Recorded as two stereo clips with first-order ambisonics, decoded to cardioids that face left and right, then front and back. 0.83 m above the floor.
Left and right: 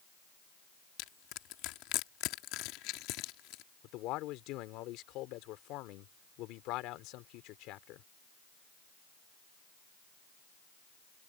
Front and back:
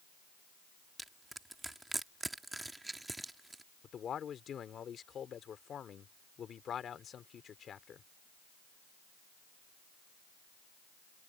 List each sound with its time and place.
1.0 s crushing: 100° left
3.8 s a man speaking: 60° left